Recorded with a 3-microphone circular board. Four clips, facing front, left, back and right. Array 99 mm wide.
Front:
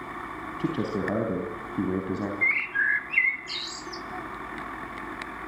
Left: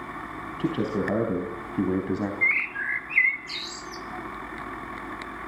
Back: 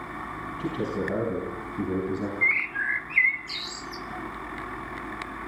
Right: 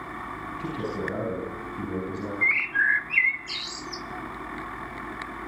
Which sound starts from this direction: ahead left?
A man speaking, at 0.6 s.